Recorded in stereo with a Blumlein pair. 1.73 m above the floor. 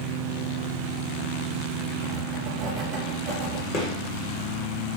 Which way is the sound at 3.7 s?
25° left.